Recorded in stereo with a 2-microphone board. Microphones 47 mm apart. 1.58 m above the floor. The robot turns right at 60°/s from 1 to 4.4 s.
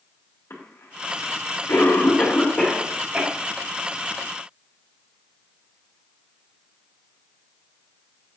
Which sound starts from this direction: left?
A cough, at 0.5 s.